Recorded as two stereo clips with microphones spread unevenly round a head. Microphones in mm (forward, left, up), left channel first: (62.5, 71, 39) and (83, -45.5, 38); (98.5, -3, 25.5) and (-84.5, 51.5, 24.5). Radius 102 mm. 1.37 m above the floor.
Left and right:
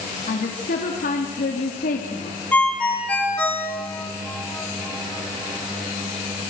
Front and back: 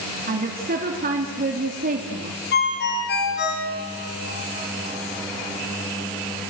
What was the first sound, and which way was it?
A woman speaking, 115° left.